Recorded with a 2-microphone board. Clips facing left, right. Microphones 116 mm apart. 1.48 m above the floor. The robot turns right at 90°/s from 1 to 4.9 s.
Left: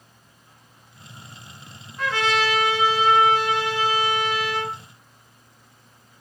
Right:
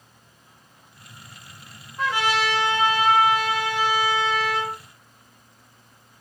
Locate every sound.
2.0 s a trumpet: 15° right (ahead or behind), 1.1 m; by 4.8 s 5° right (ahead or behind), 1.1 m